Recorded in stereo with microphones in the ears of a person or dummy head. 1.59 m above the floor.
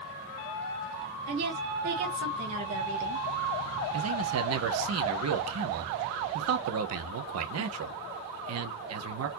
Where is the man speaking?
75° right (ahead or behind), 0.9 m.